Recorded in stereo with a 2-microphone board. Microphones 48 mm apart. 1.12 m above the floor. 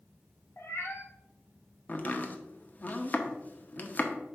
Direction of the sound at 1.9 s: 35° left (ahead or behind).